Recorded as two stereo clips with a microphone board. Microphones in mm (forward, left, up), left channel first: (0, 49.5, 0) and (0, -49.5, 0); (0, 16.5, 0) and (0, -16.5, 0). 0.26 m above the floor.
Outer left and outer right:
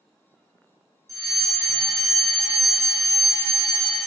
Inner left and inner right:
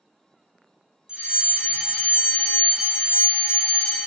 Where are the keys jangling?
No keys jangling in this recording.